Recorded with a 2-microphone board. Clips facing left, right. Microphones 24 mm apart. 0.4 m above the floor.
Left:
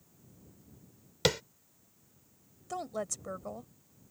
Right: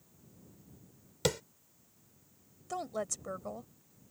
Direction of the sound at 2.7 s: Centre (ahead or behind).